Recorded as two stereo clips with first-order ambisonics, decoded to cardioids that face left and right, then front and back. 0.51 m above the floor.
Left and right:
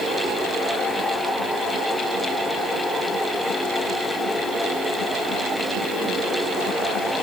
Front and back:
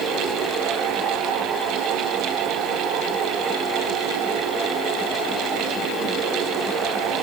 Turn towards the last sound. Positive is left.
No sound to turn to.